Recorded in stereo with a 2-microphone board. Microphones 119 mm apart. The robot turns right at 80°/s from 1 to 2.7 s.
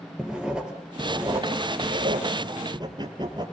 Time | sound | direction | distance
0.2 | writing | 5° right (ahead or behind) | 3.5 m